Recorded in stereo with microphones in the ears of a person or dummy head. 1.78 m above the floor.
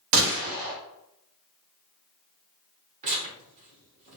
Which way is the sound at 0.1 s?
70° right (ahead or behind).